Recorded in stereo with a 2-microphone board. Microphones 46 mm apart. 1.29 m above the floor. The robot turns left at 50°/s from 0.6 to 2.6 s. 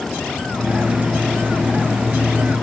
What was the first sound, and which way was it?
Only background noise.